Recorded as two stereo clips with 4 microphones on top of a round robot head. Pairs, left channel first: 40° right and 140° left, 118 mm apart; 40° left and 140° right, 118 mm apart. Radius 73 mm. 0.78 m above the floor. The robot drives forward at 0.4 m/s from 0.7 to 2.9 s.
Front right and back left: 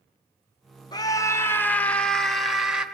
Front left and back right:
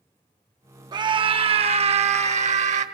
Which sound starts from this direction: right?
A scream, at 0.9 s.